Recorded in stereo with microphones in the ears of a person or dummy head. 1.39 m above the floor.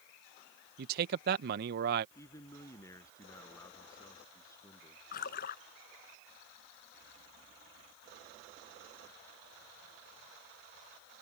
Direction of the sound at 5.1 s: 55° left (ahead or behind).